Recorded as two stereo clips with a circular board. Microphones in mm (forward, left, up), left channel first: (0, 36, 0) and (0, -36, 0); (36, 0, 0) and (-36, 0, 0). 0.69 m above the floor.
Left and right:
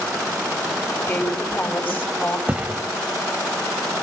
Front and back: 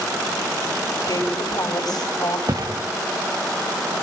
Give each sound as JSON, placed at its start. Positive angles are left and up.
{"t": 1.0, "sound": "a woman speaking", "azimuth_deg": 25, "distance_m": 3.0}
{"t": 2.5, "sound": "a thud", "azimuth_deg": -160, "distance_m": 0.8}